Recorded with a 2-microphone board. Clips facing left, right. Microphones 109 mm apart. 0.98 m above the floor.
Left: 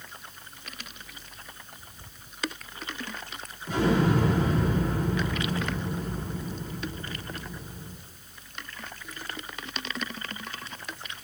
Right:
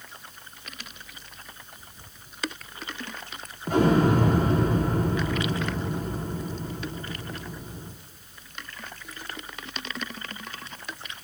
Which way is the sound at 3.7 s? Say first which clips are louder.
Right 4 dB; 45° right (ahead or behind).